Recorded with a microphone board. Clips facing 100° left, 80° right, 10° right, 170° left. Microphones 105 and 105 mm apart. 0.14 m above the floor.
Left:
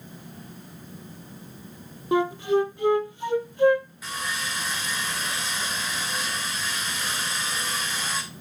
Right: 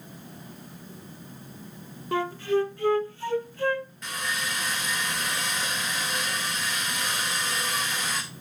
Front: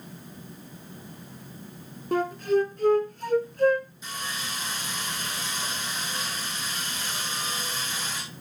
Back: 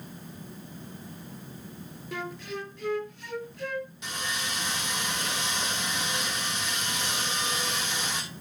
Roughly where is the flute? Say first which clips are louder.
Left 3 dB, front 13 dB; ahead left.